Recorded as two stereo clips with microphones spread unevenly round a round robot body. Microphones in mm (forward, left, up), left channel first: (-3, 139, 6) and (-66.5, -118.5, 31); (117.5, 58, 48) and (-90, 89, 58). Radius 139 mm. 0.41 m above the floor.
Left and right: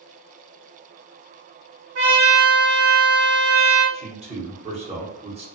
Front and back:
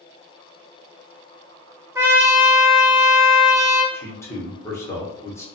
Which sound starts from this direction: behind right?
A trumpet, at 1.9 s.